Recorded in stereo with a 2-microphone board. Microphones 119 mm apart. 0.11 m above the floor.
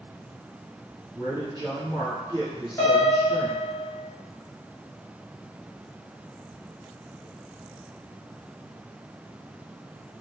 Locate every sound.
1.1 s a man speaking: 35° right (ahead or behind), 2.0 m
2.8 s a piano: 20° left (ahead or behind), 1.4 m